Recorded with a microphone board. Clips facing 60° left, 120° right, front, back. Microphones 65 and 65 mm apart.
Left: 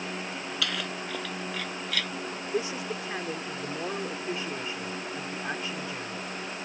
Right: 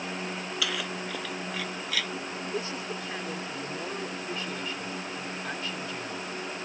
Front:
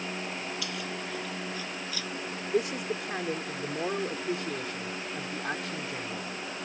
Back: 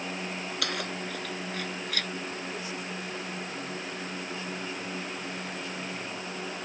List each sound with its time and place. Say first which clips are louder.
0.6 s keys jangling: even, back 2 dB; 155° left
2.5 s a man speaking: left 5 dB, front 7 dB; 10° right